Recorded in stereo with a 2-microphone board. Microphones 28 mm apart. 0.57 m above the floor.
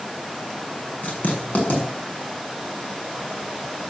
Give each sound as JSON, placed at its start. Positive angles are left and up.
{"t": 1.0, "sound": "writing", "side_deg": 65, "distance_m": 6.5}